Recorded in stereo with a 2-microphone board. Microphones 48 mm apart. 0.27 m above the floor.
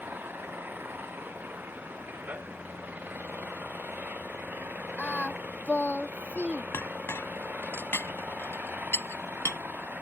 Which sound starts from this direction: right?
An engine running, at 0.0 s.